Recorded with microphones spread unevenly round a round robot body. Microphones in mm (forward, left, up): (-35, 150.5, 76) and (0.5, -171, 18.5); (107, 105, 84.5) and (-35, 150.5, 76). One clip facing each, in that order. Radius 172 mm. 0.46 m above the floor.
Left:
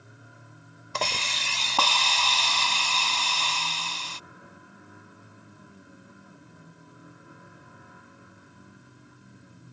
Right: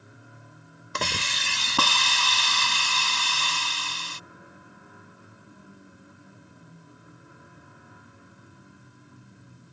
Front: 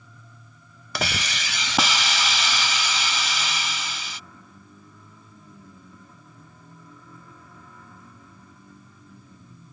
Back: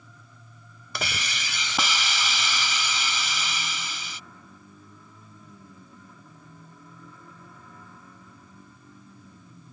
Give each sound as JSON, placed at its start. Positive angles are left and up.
{"t": 0.9, "sound": "a hiss", "azimuth_deg": -10}